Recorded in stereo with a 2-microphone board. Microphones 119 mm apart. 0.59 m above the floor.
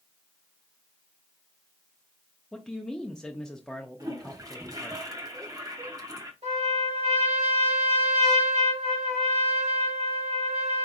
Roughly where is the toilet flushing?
Right.